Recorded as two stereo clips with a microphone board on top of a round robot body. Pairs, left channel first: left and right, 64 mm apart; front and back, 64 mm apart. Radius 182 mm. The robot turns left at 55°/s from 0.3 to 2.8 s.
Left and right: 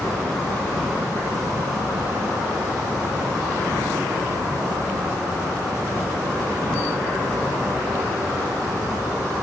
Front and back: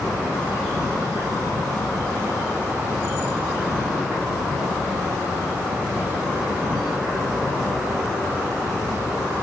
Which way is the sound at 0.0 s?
30° left.